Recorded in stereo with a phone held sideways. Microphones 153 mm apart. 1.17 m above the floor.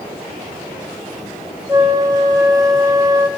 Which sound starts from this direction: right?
A flute, at 1.7 s.